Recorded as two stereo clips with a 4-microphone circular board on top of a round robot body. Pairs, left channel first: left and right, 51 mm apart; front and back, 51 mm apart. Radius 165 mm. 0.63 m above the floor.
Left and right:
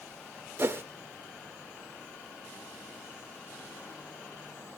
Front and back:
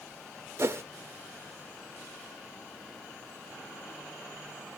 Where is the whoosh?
135° right, 0.8 m.